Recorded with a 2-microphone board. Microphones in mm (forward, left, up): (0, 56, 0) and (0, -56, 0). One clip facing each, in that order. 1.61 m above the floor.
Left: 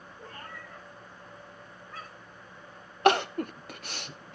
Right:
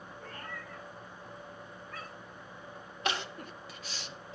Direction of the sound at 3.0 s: 60° left (ahead or behind).